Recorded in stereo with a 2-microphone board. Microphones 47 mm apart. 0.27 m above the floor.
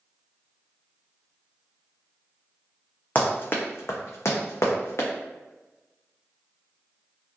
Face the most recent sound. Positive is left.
turn(degrees=65)  # may be behind; listen again after turning